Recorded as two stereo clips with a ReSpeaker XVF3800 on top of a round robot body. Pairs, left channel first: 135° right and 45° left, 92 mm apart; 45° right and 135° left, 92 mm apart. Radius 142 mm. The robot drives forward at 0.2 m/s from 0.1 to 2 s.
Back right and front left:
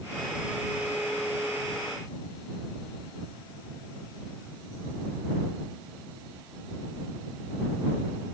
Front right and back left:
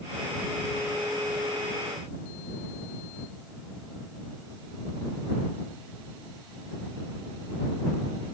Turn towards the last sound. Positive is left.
No sound to turn to.